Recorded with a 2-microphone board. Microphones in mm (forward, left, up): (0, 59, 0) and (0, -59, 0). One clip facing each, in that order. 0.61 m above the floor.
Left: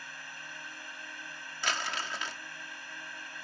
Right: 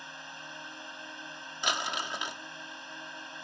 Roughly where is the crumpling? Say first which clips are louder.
Right 2 dB; centre.